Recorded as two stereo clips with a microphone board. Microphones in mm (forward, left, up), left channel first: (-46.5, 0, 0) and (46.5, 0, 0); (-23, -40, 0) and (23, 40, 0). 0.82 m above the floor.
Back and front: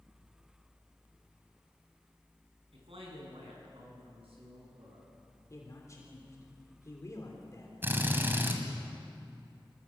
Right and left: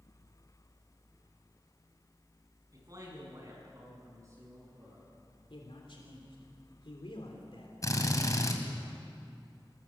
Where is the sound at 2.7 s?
10° left, 8.5 m; by 5.1 s 5° left, 10.5 m.